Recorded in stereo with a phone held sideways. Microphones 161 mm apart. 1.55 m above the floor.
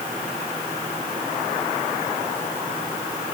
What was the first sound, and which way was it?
Only background noise.